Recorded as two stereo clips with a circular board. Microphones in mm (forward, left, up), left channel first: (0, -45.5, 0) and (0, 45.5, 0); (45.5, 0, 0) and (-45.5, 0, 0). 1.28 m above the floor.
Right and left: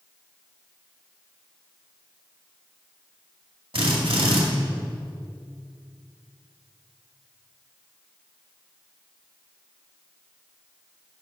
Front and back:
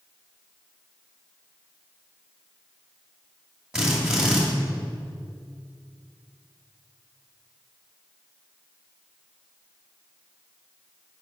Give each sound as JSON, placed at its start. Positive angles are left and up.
{"t": 3.7, "sound": "a drill", "azimuth_deg": 95, "distance_m": 2.0}